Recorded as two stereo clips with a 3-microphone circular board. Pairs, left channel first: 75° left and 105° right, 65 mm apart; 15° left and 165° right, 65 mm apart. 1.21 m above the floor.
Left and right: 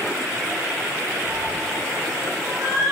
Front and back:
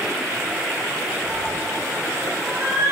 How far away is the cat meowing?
About 0.6 m.